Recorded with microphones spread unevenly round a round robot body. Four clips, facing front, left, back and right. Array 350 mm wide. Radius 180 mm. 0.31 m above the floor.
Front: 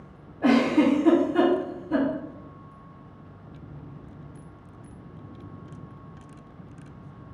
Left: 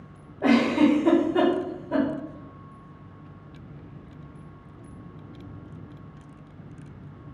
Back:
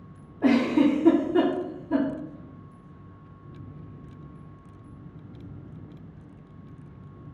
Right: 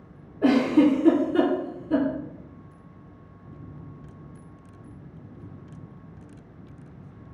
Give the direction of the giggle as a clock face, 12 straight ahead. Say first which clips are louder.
Right 1 dB, front 1 dB; 4 o'clock.